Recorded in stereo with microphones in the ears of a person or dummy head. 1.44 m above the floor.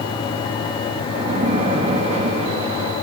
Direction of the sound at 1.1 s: 40° right (ahead or behind).